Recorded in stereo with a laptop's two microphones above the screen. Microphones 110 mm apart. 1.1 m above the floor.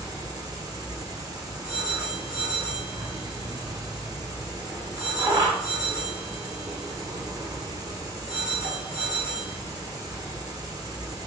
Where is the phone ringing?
30° right (ahead or behind), 1.8 m.